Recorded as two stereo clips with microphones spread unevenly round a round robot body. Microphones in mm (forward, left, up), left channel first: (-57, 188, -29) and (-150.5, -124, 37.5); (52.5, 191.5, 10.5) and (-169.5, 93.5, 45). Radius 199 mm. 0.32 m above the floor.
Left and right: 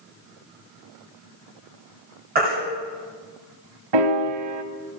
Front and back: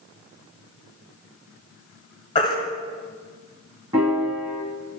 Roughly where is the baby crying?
Ahead right.